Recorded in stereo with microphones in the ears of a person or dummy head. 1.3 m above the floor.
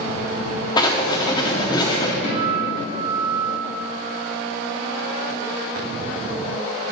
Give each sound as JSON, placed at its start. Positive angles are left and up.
{"t": 0.8, "sound": "writing", "side_deg": 20, "distance_m": 0.7}
{"t": 2.2, "sound": "a guitar", "side_deg": 40, "distance_m": 2.0}